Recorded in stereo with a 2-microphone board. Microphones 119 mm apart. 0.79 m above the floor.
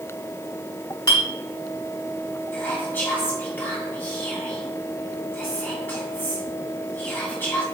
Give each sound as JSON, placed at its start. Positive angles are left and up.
{"t": 1.1, "sound": "a clink", "side_deg": 35, "distance_m": 1.4}
{"t": 2.5, "sound": "whispering", "side_deg": 20, "distance_m": 1.5}